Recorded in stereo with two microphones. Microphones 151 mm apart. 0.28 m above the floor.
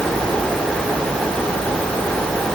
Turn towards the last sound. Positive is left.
No sound to turn to.